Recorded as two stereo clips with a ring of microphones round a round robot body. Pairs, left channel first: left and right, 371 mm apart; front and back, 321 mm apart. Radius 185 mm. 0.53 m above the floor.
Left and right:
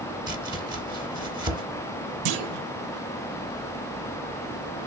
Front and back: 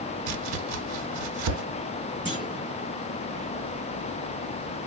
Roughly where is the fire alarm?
I don't hear a fire alarm.